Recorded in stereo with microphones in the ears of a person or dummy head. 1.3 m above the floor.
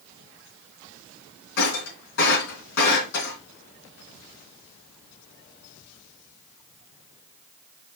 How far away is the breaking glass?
About 3.5 m.